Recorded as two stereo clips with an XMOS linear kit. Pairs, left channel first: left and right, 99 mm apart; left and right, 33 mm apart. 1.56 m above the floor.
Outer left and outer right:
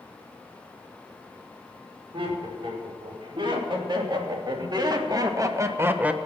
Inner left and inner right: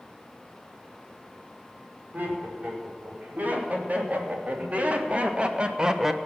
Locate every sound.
2.1 s laughter: 55° right (ahead or behind), 5 m; by 6.2 s 10° right (ahead or behind), 1.0 m